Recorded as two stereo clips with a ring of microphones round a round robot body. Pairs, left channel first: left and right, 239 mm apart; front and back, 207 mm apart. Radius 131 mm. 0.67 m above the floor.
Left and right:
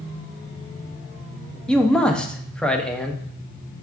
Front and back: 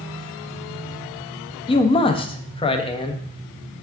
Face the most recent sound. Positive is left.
turn(degrees=10)